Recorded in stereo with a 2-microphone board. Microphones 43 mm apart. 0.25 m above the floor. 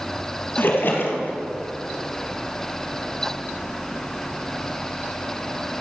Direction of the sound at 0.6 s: 50° left (ahead or behind).